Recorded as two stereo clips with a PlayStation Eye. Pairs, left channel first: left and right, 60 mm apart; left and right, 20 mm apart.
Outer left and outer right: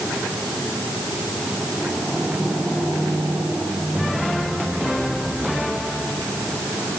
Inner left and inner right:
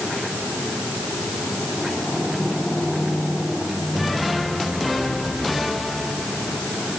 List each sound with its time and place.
Only background noise.